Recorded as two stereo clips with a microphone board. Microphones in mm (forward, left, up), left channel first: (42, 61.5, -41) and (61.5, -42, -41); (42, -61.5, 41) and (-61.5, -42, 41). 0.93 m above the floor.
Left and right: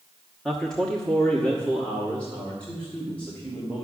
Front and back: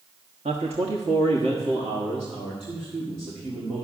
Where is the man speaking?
175° right, 1.1 m; by 3.8 s 175° left, 3 m.